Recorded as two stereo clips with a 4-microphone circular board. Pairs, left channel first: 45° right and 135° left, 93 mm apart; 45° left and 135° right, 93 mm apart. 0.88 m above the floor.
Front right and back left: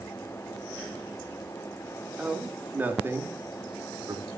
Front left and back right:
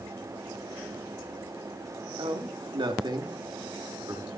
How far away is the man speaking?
About 1.9 m.